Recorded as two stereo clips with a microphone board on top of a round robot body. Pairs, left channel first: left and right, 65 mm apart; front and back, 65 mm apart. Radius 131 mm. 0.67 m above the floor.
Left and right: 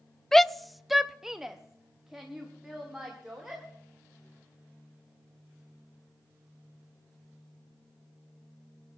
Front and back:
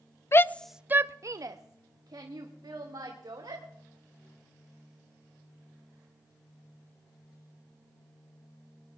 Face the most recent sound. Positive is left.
turn(degrees=-170)